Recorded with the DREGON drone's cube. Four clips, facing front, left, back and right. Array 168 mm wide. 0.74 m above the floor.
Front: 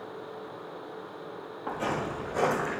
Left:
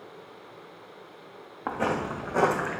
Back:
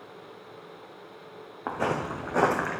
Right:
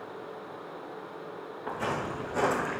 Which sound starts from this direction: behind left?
Footsteps, at 1.7 s.